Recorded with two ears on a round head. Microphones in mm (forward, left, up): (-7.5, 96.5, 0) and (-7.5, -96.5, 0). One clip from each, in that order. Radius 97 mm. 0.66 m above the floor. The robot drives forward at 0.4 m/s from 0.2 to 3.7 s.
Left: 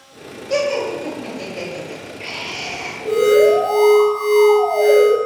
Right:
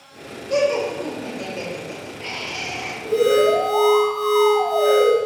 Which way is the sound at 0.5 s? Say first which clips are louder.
Even; 20° left (ahead or behind).